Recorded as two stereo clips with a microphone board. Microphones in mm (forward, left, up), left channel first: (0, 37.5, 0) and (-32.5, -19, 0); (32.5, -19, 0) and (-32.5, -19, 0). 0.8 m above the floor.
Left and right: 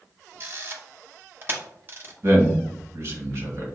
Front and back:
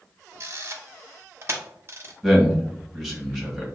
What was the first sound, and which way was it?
A camera shutter, 160° right.